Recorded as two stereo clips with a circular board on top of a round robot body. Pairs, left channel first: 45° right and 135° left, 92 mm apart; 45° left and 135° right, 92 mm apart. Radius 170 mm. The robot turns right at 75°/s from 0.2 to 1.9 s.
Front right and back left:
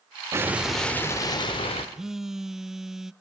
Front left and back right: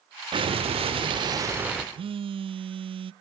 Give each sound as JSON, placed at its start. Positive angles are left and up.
{"t": 0.3, "sound": "an explosion", "azimuth_deg": -165, "distance_m": 1.5}
{"t": 1.9, "sound": "a phone buzzing", "azimuth_deg": -140, "distance_m": 0.5}